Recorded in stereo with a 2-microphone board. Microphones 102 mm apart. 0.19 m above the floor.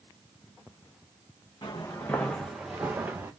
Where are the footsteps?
45° left (ahead or behind), 1.1 m; by 3.3 s 20° right (ahead or behind), 1.8 m.